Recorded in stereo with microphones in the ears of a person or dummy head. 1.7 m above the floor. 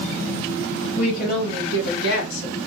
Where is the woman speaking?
40° left (ahead or behind), 1.3 m; by 2.6 s 80° left, 1.9 m.